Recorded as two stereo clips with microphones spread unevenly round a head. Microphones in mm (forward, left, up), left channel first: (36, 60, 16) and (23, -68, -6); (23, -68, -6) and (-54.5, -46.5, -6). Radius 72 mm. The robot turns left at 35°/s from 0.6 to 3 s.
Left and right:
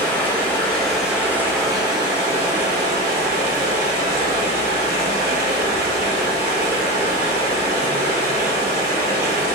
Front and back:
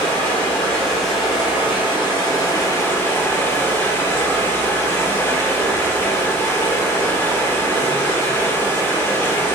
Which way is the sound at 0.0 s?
5° left.